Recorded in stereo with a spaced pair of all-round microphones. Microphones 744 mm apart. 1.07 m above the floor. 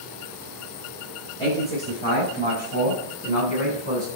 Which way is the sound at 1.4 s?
20° left (ahead or behind).